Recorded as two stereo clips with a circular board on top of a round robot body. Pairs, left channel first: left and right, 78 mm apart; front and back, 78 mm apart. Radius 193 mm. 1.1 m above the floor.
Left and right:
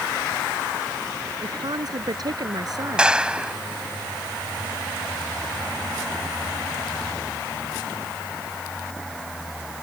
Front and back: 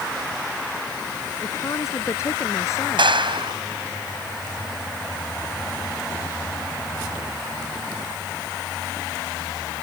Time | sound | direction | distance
1.4 | a woman speaking | 55° right | ?
3.0 | a clap | 170° right | ?